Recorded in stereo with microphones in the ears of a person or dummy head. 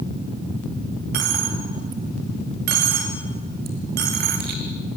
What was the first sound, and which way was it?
A dropped coin, 45° right (ahead or behind).